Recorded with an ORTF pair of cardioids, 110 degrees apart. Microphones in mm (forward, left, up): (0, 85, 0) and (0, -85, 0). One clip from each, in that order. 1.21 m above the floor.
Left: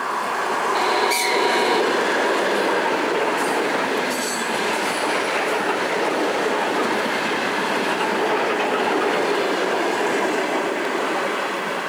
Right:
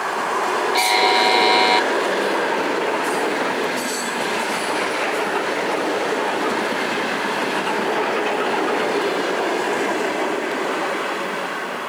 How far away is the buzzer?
About 0.7 m.